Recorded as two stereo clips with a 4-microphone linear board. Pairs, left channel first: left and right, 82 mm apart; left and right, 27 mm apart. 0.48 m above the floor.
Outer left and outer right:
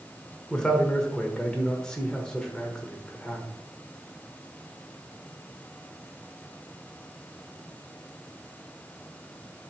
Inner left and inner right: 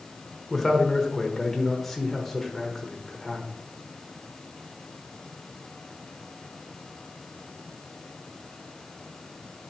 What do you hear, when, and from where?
0.5 s a man speaking: 10° left (ahead or behind), 1.2 m